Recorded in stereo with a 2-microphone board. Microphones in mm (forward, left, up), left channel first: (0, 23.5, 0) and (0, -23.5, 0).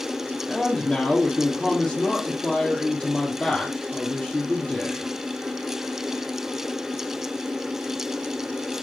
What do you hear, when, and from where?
0.5 s a man speaking: 5° left (ahead or behind), 2.5 m